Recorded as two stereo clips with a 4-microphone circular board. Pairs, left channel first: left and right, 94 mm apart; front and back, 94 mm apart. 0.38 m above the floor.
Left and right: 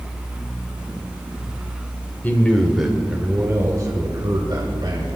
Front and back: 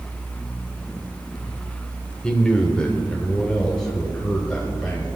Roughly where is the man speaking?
Ahead left.